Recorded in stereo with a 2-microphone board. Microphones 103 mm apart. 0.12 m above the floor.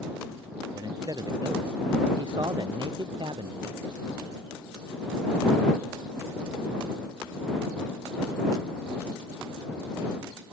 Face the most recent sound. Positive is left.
turn(degrees=-55)  # may be behind; listen again after turning